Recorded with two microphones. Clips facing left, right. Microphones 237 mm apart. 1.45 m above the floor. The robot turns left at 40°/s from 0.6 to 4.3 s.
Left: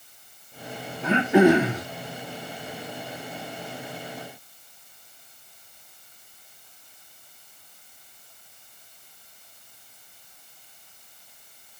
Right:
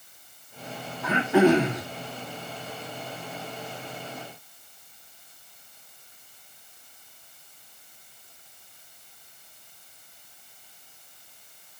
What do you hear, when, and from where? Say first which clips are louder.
1.0 s throat clearing: left 2 dB; 30° left, 1.8 m; by 1.8 s straight ahead, 1.8 m